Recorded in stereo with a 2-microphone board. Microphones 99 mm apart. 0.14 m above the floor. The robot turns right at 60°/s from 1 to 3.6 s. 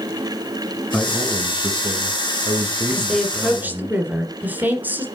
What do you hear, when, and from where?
0.9 s a man speaking: 175° right, 1.9 m; by 3.9 s 20° right, 1.9 m
2.9 s a woman speaking: 165° left, 2 m; by 5.0 s 155° right, 2 m